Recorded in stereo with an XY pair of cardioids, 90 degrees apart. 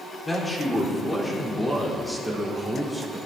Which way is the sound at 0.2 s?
25° left.